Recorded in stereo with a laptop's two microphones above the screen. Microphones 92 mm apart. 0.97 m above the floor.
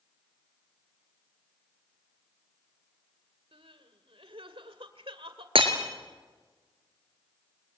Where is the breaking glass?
75° right (ahead or behind), 3 m.